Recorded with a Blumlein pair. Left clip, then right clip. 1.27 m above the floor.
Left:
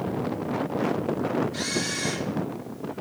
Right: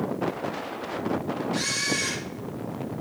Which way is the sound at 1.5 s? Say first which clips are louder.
Right 2 dB; 30° right.